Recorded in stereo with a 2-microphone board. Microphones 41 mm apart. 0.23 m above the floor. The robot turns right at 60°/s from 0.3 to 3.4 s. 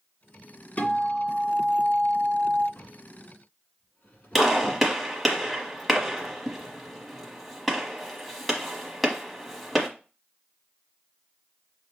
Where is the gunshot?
Centre (ahead or behind), 1.0 m.